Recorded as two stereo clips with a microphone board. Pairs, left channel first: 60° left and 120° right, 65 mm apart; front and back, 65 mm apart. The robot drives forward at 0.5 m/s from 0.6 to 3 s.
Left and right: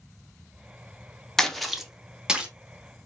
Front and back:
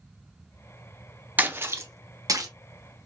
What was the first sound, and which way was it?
A splash, 135° left.